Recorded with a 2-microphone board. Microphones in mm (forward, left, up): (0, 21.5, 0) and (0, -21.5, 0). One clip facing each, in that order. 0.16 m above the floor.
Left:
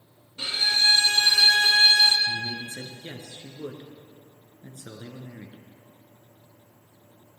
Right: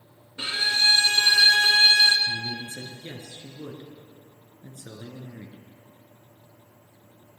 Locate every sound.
0.4 s a violin: 35° right (ahead or behind), 1.1 m
2.3 s a man speaking: 35° left (ahead or behind), 1.9 m